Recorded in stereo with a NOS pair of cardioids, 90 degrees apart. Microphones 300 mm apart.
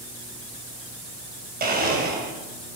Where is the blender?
30° right, 2.5 m.